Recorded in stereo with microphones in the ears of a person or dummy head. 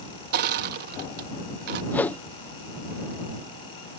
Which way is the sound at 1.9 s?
15° left (ahead or behind).